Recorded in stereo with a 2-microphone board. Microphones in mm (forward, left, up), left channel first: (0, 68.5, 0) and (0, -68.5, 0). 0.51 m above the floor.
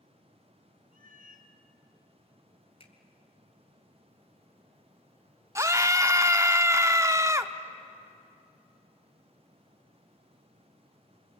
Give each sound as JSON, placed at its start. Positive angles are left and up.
{"t": 0.9, "sound": "a cat meowing", "side_deg": -85, "distance_m": 1.8}
{"t": 2.8, "sound": "a finger snap", "side_deg": 45, "distance_m": 2.5}
{"t": 5.5, "sound": "a scream", "side_deg": -20, "distance_m": 0.7}